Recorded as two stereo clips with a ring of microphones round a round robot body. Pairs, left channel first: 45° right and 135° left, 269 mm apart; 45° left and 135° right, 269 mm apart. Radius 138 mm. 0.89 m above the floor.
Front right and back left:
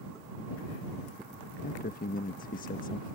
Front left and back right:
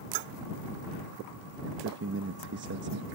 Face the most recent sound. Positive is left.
turn(degrees=-95)